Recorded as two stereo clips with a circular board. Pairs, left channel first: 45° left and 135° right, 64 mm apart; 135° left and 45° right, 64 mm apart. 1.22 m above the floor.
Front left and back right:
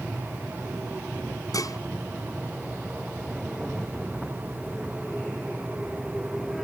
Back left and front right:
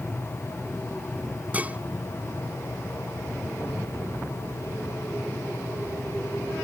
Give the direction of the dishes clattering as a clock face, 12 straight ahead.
11 o'clock.